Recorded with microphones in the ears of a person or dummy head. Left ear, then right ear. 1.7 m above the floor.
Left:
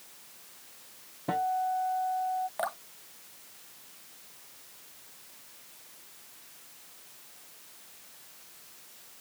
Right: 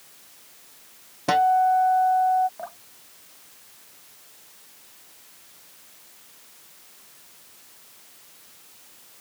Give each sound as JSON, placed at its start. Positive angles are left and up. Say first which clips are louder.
{"t": 1.3, "sound": "a guitar", "louder": "right 11 dB", "side_deg": -80}
{"t": 2.6, "sound": "dripping", "louder": "left 4 dB", "side_deg": 55}